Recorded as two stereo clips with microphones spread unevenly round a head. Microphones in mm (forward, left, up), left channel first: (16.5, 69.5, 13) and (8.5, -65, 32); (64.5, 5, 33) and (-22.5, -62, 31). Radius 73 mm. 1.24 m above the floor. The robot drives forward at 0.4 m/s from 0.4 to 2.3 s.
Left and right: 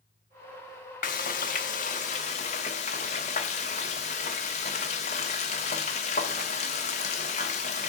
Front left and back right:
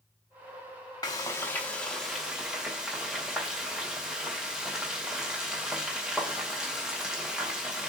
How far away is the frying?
About 0.9 m.